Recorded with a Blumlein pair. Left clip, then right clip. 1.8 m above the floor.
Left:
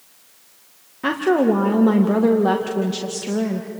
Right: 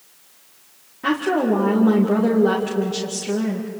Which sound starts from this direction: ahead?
A woman speaking, at 1.0 s.